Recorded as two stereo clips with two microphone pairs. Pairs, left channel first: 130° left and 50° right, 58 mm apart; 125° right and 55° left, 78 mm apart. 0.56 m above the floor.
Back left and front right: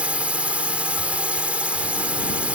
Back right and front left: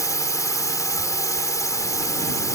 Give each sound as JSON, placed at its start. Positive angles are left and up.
{"t": 0.0, "sound": "a drone", "azimuth_deg": -110}